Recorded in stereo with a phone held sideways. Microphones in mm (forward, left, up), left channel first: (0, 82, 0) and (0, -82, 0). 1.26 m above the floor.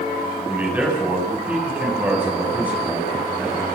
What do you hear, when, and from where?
0.5 s a man speaking: 10° right (ahead or behind), 8.5 m